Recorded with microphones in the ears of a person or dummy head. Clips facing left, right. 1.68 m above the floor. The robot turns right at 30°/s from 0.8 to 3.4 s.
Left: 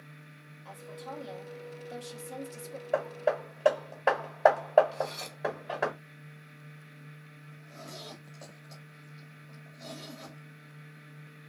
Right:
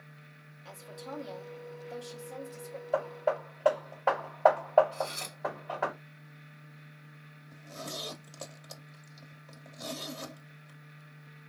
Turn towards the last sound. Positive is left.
turn(degrees=-90)